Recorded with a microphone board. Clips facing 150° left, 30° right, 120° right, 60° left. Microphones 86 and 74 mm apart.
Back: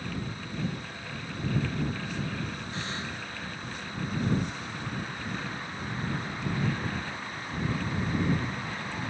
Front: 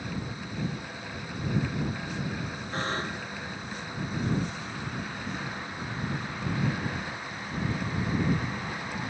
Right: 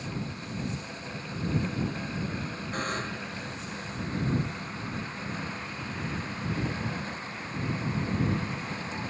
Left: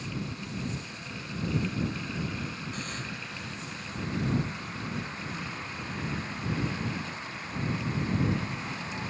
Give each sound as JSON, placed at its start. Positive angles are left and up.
{"t": 2.7, "sound": "a buzzer", "azimuth_deg": -75}